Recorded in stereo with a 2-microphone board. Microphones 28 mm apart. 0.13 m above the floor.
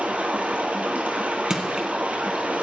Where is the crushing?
25° right (ahead or behind), 1.7 m.